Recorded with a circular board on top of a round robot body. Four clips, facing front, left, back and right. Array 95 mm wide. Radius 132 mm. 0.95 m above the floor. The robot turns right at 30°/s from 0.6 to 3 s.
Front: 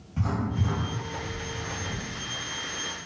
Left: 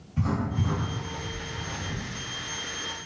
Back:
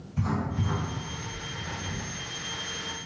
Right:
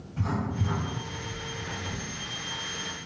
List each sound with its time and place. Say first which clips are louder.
0.2 s writing: left 2 dB, even; 10° left, 1.7 m; by 2.1 s 50° left, 1.7 m